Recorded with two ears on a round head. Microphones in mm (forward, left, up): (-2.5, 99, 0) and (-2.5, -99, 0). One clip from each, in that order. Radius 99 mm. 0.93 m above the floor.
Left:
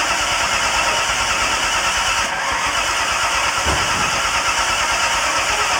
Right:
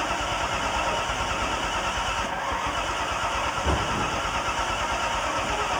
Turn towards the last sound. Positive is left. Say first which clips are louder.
# left 9 dB
turn(degrees=60)  # may be behind; listen again after turning